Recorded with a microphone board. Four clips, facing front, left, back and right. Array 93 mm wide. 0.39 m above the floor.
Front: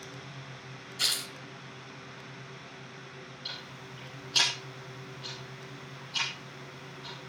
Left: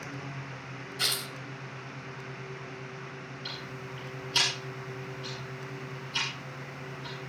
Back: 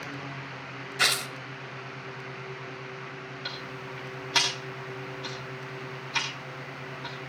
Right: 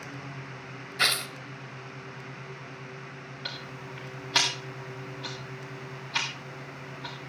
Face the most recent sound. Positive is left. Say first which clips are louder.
# right 2 dB, back 7 dB
turn(degrees=-130)